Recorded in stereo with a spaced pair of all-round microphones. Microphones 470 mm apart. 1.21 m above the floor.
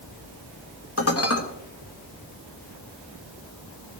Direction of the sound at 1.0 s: 30° left (ahead or behind).